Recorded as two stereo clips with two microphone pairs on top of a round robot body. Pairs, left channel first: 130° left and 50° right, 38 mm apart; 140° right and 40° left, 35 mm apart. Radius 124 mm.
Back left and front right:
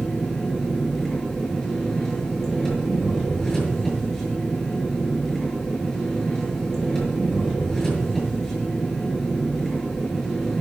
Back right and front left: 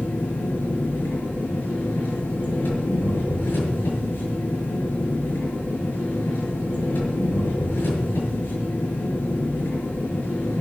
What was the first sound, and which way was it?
An engine running, 150° right.